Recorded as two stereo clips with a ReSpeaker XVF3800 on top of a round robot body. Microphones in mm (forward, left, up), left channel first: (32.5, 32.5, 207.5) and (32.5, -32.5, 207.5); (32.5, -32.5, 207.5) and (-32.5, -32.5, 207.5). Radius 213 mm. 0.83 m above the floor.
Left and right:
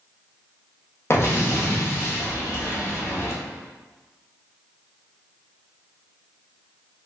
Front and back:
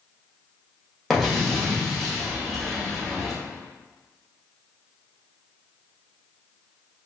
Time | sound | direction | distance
1.1 | an explosion | 90° left | 1.1 m